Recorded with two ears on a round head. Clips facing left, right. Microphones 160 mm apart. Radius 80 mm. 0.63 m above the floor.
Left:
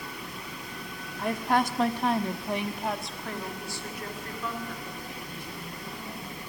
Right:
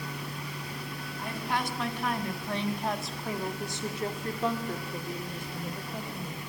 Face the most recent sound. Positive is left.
turn(degrees=-45)  # may be behind; listen again after turning